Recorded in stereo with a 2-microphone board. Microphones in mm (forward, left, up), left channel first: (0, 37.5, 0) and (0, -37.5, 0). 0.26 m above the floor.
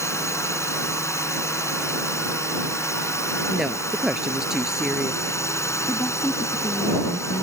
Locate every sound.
0.0 s a drone: 40° left (ahead or behind)
3.5 s a woman speaking: 5° right (ahead or behind)
5.9 s a woman speaking: 30° left (ahead or behind)